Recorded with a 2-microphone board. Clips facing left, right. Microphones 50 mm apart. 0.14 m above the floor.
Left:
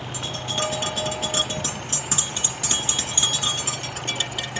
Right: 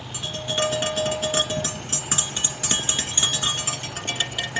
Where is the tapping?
20° right (ahead or behind), 1.6 m.